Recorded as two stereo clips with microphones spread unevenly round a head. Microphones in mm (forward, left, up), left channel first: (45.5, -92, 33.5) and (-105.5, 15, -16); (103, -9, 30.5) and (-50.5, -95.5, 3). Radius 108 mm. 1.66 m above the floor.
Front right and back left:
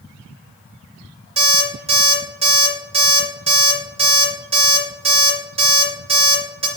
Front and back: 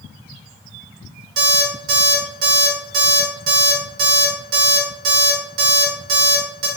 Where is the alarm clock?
150° right, 1.9 m.